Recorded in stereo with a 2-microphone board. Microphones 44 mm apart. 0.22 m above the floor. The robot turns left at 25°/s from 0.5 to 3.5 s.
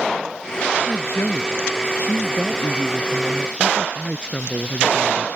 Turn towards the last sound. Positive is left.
turn(degrees=20)